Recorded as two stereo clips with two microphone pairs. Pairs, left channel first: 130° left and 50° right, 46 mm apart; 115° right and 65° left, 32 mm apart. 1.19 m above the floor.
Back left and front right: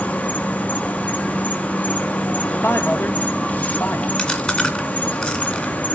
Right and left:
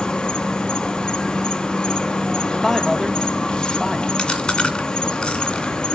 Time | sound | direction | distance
0.0 | an insect | 170° right | 1.1 m
2.5 | a man speaking | 160° left | 1.5 m
4.2 | chewing | 165° right | 1.9 m